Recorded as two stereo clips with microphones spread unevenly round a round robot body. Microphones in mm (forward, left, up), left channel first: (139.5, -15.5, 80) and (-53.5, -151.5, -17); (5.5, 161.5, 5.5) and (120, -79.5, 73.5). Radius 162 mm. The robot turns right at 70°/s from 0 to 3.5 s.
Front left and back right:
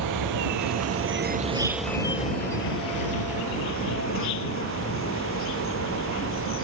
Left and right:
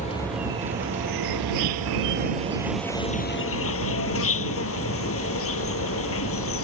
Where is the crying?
No crying in this recording.